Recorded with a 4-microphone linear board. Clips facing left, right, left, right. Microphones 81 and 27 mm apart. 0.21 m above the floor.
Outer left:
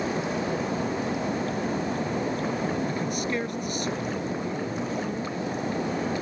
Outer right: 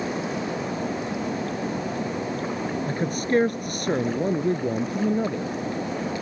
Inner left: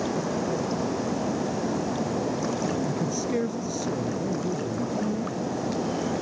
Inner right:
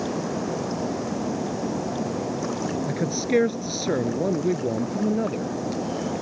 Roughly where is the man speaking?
Right.